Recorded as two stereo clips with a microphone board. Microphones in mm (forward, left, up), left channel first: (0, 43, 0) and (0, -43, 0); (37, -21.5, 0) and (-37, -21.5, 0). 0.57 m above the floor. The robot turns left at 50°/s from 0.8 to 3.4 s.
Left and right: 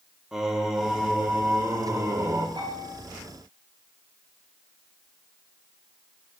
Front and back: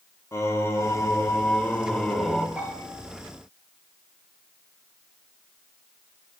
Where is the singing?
10° right, 0.9 m; by 2.5 s 95° right, 0.9 m.